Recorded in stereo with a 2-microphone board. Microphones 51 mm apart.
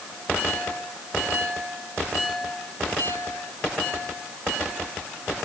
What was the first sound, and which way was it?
Only background noise.